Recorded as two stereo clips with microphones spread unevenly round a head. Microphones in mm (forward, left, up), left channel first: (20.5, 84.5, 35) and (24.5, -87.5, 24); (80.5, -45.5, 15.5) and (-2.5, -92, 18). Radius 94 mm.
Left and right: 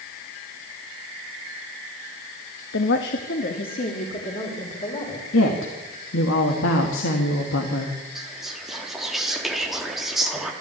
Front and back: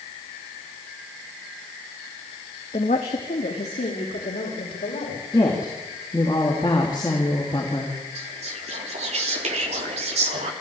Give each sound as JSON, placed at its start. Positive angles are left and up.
{"t": 2.7, "sound": "a woman speaking", "azimuth_deg": 85, "distance_m": 1.3}
{"t": 5.3, "sound": "a woman speaking", "azimuth_deg": 95, "distance_m": 2.5}
{"t": 8.2, "sound": "whispering", "azimuth_deg": -175, "distance_m": 3.0}